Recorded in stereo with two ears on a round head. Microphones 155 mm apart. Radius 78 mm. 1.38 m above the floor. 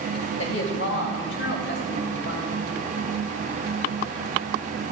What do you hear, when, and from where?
0.4 s a woman speaking: 85° left, 1.9 m; by 2.9 s 65° left (ahead or behind), 3 m